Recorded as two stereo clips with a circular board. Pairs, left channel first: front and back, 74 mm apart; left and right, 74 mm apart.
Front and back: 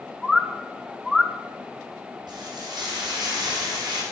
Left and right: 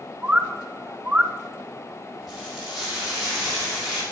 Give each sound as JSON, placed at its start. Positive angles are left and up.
{"t": 0.2, "sound": "a bird", "azimuth_deg": -100, "distance_m": 0.7}
{"t": 2.3, "sound": "frying", "azimuth_deg": 180, "distance_m": 6.0}